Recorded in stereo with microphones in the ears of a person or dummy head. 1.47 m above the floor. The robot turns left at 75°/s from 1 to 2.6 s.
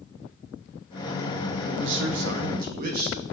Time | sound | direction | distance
1.6 | a man speaking | 60° right | 1.2 m